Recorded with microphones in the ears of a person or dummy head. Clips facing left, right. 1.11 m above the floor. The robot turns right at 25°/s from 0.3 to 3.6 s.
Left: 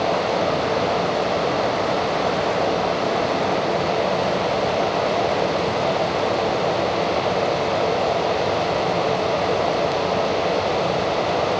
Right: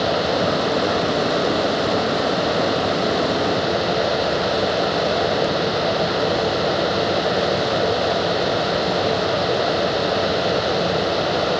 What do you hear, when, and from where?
Only background noise.